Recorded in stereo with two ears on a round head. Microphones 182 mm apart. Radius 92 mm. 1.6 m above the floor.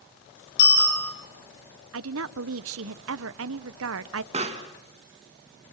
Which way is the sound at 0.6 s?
60° left (ahead or behind).